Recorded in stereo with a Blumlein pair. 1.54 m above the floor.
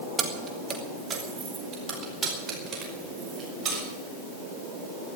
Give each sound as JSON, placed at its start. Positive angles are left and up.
{"t": 0.2, "sound": "keys jangling", "azimuth_deg": -20, "distance_m": 1.8}